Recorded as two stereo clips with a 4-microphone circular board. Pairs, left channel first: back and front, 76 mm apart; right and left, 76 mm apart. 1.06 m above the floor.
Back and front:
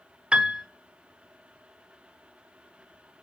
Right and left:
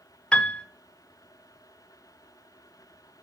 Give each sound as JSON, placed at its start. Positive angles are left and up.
{"t": 0.3, "sound": "a piano", "azimuth_deg": -45, "distance_m": 0.7}